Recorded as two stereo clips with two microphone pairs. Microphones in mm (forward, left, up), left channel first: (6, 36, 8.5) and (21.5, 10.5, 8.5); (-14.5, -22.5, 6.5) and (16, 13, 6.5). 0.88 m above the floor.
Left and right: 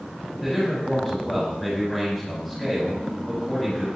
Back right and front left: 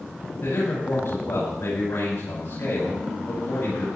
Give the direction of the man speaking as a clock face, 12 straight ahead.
5 o'clock.